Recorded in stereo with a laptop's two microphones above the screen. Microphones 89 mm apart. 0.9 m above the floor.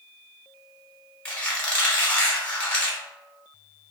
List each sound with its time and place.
1.2 s a squeak: 15° left (ahead or behind), 1.0 m